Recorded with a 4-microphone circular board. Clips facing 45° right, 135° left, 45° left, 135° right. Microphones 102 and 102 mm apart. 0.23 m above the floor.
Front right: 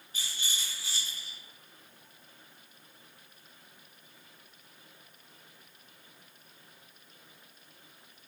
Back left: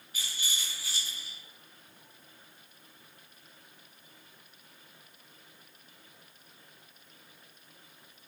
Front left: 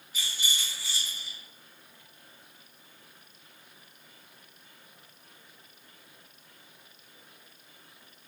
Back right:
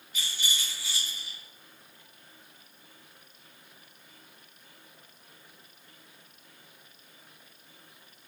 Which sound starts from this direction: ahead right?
A rattle, at 0.1 s.